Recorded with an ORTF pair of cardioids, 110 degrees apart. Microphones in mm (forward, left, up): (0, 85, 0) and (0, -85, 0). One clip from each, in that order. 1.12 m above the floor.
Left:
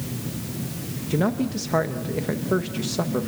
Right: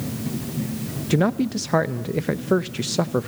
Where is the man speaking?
40° right, 0.8 m.